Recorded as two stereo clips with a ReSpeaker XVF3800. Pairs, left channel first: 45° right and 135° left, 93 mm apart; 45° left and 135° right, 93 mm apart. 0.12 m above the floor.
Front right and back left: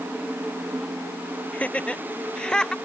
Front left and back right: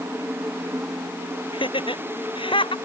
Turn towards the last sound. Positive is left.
turn(degrees=40)